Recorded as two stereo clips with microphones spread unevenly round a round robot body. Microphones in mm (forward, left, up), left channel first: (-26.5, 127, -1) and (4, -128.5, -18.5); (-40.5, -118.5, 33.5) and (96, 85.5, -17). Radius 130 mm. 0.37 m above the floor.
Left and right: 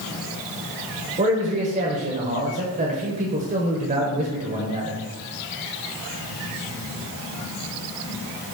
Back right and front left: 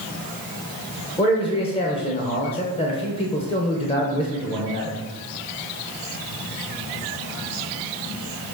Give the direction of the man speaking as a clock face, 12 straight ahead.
2 o'clock.